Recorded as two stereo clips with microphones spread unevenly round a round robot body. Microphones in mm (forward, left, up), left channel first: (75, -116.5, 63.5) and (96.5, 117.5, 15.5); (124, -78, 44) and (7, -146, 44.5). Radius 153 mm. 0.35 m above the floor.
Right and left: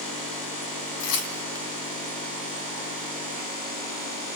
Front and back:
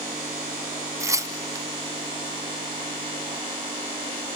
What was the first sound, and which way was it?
Tearing paper, 85° right.